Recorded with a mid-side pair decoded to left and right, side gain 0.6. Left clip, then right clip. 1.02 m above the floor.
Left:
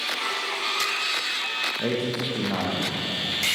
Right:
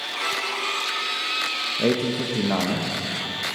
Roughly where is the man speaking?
Ahead right.